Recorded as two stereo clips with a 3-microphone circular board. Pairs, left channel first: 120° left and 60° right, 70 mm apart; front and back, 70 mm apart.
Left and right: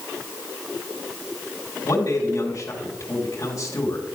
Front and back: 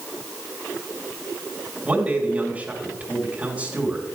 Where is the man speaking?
115° left, 2.5 m.